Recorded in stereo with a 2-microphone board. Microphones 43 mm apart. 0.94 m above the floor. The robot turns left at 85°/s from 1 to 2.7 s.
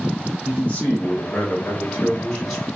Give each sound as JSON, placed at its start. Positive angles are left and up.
{"t": 0.5, "sound": "a man speaking", "azimuth_deg": 130, "distance_m": 0.6}